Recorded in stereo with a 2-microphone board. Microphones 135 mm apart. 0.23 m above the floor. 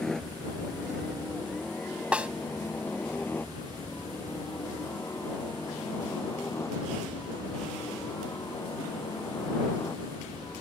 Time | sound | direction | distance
0.0 | a helicopter | 5° left (ahead or behind) | ?
2.1 | a snare drum | 10° right (ahead or behind) | ?